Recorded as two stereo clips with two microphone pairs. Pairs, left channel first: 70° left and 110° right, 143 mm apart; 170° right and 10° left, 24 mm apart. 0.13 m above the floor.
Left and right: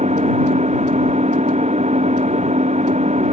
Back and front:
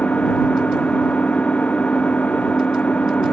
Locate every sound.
0.0 s an engine running: 145° right